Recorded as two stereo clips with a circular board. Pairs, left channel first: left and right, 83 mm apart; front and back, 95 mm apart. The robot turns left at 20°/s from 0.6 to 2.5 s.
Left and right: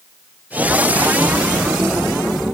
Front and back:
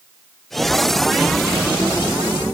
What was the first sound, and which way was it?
Only background noise.